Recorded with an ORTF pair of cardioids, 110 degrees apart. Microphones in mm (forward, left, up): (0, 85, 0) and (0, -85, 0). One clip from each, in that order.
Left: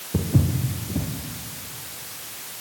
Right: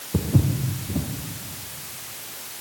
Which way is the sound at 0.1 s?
5° right.